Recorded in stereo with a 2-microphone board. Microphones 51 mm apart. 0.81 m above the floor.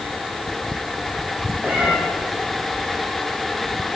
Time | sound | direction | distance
1.6 | a cat meowing | 35° right (ahead or behind) | 4 m